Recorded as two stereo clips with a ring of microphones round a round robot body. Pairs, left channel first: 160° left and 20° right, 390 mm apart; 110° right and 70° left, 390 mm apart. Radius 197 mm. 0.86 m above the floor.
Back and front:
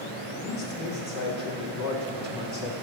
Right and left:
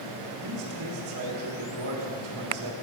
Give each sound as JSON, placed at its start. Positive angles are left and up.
{"t": 0.4, "sound": "a man speaking", "azimuth_deg": 110, "distance_m": 1.6}